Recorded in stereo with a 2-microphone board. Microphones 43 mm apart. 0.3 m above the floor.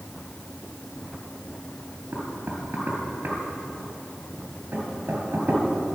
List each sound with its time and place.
2.1 s knocking: 55° right (ahead or behind), 3.5 m